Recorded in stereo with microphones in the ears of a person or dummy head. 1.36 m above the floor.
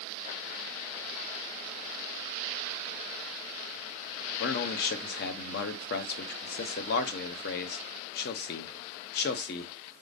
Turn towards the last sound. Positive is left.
turn(degrees=60)  # may be behind; listen again after turning